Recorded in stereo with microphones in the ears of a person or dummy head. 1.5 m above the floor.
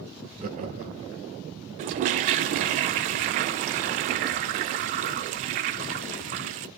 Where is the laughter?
45° right (ahead or behind), 1.1 m.